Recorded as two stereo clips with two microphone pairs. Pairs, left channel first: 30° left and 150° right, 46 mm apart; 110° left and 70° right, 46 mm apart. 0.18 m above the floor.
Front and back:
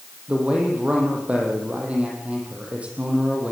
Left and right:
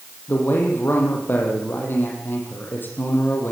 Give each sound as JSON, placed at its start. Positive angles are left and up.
{"t": 0.3, "sound": "a man speaking", "azimuth_deg": 150, "distance_m": 7.0}